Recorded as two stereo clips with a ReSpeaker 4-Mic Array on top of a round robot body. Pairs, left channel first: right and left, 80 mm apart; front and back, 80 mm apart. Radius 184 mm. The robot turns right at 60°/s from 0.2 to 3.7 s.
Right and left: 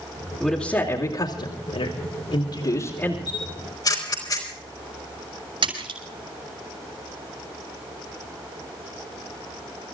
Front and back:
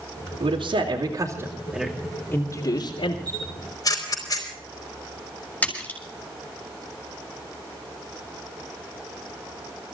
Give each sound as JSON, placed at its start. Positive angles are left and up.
{"t": 0.4, "sound": "a man speaking", "azimuth_deg": -175, "distance_m": 2.5}
{"t": 3.3, "sound": "a camera shutter", "azimuth_deg": -75, "distance_m": 4.0}
{"t": 5.6, "sound": "a splash", "azimuth_deg": 75, "distance_m": 6.5}